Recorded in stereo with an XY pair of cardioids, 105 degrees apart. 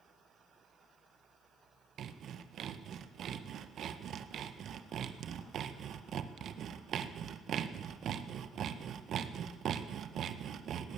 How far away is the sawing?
About 1.6 m.